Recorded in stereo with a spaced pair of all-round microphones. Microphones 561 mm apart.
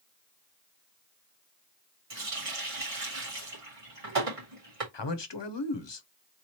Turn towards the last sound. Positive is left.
turn(degrees=50)  # may be behind; listen again after turning